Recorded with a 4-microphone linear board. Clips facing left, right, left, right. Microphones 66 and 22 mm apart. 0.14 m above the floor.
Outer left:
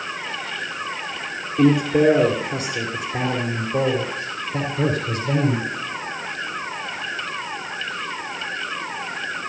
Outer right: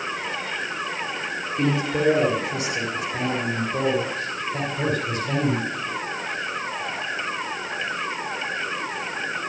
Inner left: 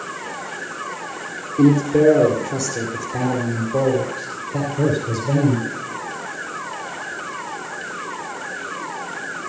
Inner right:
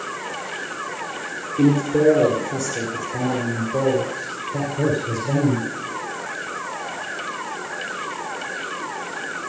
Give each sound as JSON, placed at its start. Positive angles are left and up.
{"t": 1.6, "sound": "a man speaking", "side_deg": 15, "distance_m": 3.0}